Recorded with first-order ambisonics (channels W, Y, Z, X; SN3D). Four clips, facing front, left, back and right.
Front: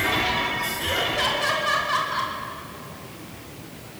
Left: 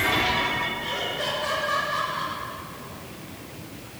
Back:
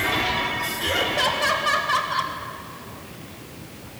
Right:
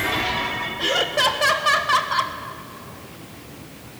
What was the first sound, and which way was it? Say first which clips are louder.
Laughter: right 8 dB, back 3 dB; 100° right.